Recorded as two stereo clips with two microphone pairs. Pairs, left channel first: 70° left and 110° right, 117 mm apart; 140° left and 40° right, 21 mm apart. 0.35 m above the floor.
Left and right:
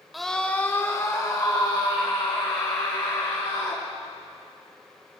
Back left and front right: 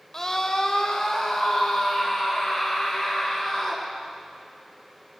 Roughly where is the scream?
Behind.